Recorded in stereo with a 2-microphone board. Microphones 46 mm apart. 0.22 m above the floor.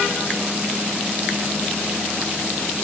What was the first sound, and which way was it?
Only background noise.